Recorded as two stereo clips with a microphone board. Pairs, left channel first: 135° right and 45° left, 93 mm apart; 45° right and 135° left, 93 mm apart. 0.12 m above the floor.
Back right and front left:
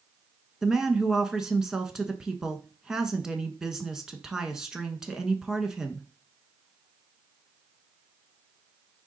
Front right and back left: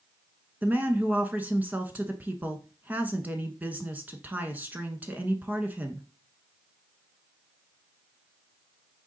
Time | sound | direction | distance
0.6 | a woman speaking | 120° left | 1.1 m